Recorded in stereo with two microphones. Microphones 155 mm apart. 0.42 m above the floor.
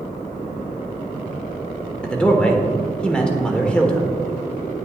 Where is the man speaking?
5° left (ahead or behind), 1.0 m.